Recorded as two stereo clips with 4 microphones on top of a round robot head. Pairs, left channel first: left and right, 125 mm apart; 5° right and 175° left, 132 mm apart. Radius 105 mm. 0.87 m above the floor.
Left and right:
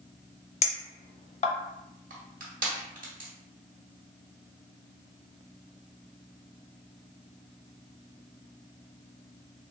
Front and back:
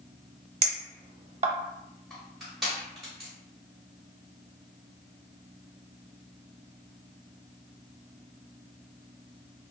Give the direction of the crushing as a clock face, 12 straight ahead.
3 o'clock.